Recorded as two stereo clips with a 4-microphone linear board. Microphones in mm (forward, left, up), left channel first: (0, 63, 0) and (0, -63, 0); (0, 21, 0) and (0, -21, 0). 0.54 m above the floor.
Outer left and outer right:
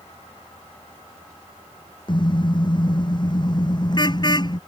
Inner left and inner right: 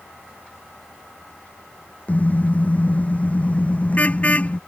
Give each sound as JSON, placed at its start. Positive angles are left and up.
{"t": 2.1, "sound": "a car horn", "side_deg": 40}